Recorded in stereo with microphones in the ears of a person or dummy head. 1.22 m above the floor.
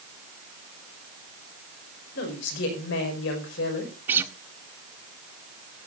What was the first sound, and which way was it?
A woman speaking, 70° left (ahead or behind).